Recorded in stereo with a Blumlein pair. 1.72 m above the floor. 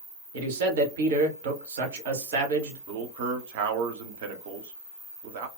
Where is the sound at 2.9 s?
50° right, 0.7 m.